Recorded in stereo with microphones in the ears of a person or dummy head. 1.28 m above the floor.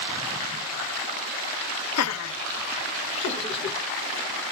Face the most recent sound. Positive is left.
turn(degrees=30)  # may be behind; listen again after turning